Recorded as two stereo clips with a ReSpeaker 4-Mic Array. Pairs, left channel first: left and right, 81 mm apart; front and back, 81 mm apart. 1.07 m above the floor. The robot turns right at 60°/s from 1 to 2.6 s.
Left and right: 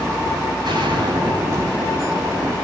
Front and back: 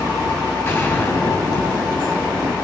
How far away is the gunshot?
About 9.5 m.